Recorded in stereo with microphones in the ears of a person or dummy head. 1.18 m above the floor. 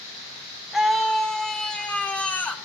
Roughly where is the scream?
Centre.